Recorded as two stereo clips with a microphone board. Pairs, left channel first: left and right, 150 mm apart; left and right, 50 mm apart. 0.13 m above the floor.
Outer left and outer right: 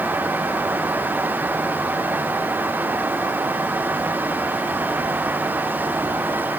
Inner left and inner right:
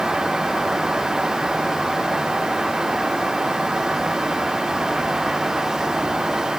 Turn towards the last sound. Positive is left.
No sound to turn to.